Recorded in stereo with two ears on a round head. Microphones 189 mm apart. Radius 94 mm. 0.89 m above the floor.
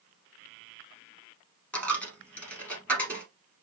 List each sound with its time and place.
1.7 s a dropped coin: 5° left (ahead or behind), 1.4 m